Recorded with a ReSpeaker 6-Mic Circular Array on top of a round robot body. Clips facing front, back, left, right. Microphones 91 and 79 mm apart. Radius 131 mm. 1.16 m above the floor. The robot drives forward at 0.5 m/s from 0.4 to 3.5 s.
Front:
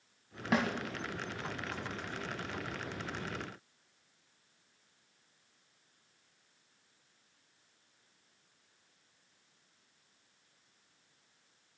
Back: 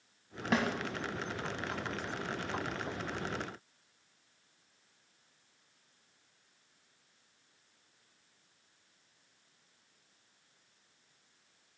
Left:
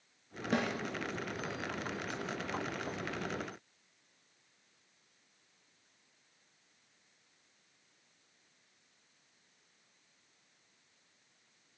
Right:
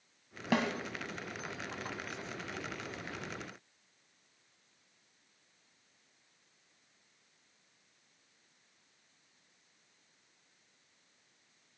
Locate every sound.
0.5 s a snare drum: 85° right, 1.8 m; by 0.7 s 90° right, 1.8 m